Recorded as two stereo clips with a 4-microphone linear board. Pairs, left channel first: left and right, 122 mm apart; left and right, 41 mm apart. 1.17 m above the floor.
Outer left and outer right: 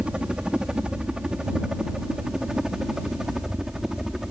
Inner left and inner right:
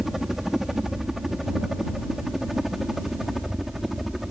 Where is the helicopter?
10° right (ahead or behind); by 4.3 s 5° right (ahead or behind).